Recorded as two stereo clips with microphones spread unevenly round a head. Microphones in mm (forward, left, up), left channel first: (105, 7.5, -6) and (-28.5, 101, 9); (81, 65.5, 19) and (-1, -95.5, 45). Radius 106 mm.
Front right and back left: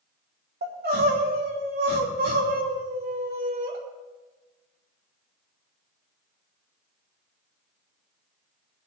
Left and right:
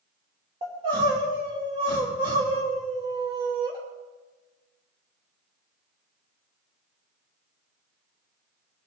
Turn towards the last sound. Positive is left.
turn(degrees=180)